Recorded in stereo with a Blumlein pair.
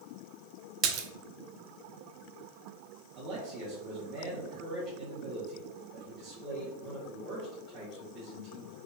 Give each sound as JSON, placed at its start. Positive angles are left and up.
{"t": 0.8, "sound": "a splash", "azimuth_deg": -35, "distance_m": 0.6}
{"t": 3.1, "sound": "a man speaking", "azimuth_deg": -30, "distance_m": 2.0}